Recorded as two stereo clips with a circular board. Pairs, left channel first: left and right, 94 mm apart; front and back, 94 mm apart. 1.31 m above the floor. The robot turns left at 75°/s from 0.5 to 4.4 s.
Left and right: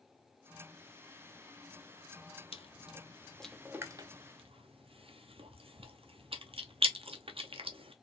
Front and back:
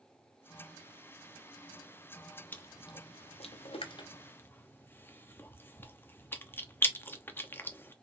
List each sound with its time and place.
2.5 s chewing: 75° left, 0.6 m; by 7.9 s 70° right, 0.6 m